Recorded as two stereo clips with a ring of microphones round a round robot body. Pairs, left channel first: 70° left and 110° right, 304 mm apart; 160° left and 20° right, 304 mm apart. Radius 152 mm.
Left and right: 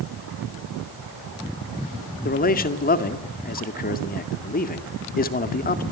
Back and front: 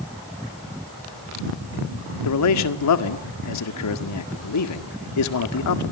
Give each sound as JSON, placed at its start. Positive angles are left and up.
{"t": 2.2, "sound": "a man speaking", "azimuth_deg": 130, "distance_m": 1.8}